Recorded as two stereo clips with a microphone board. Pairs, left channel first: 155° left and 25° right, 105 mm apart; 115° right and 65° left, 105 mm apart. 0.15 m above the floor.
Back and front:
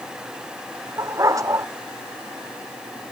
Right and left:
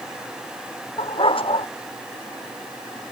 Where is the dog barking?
80° right.